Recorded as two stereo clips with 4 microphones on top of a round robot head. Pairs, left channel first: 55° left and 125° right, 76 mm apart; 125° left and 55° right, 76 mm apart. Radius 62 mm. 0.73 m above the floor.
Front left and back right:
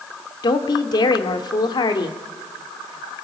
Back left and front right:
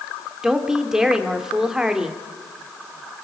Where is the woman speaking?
25° left, 2.0 m.